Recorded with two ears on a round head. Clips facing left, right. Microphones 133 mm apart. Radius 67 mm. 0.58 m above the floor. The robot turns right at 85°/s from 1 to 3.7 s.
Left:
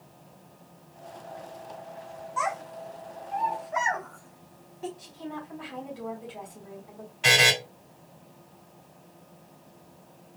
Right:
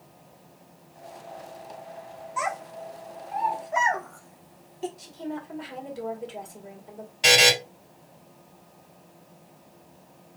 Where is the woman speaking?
50° right (ahead or behind), 2 m.